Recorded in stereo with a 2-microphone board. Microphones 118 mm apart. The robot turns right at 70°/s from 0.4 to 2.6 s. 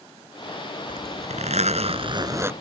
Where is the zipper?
135° right; by 2.5 s 20° right.